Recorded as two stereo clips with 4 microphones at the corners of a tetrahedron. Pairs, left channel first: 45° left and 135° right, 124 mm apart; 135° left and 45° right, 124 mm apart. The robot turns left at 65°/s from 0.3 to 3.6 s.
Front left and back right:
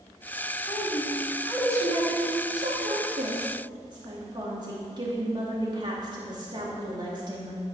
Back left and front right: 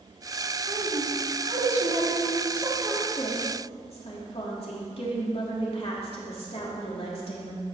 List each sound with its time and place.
0.7 s a woman speaking: straight ahead, 3 m; by 7.7 s 170° left, 3 m